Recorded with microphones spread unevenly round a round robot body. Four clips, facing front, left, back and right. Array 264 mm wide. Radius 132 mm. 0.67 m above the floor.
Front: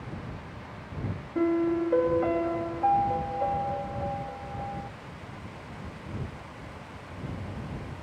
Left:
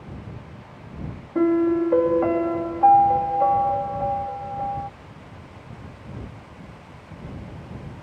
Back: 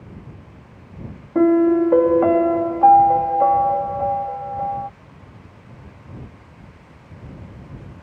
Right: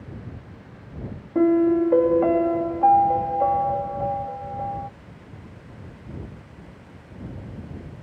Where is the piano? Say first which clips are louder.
Right 1 dB, back 11 dB; 170° right.